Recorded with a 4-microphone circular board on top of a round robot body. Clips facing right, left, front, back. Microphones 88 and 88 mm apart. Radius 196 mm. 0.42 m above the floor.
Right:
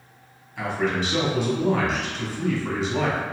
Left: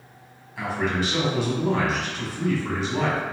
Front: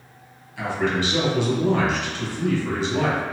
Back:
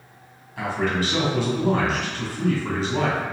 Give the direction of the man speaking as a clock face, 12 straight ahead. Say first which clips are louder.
Right 1 dB, front 1 dB; 6 o'clock.